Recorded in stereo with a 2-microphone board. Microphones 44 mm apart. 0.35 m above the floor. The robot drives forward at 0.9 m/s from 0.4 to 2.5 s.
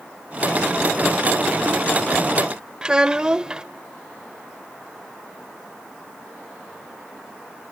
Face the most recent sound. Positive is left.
turn(degrees=-20)  # may be behind; listen again after turning